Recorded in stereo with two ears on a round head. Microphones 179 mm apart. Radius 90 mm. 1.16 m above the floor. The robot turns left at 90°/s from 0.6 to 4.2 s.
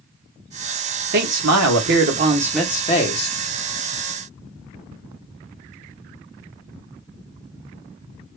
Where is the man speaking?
50° right, 1.3 m; by 3.4 s 110° left, 1.3 m.